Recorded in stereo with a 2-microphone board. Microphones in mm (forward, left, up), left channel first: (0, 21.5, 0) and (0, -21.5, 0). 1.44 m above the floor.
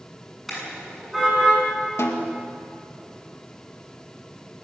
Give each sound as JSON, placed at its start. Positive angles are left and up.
{"t": 0.5, "sound": "a car horn", "side_deg": 5, "distance_m": 8.0}
{"t": 2.0, "sound": "a snare drum", "side_deg": 80, "distance_m": 2.5}